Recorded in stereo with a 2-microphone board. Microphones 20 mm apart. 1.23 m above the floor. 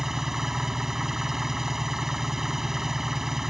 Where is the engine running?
20° right (ahead or behind).